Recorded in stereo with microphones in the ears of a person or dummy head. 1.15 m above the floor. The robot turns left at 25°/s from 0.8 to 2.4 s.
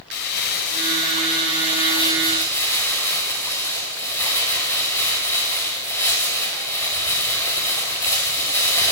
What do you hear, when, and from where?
0.1 s crumpling: 50° left, 6.5 m; by 8.9 s 10° left, 6.5 m